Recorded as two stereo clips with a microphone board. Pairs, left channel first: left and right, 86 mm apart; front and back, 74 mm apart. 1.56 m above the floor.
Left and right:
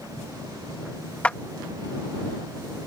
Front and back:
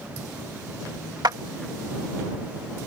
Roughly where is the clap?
Behind.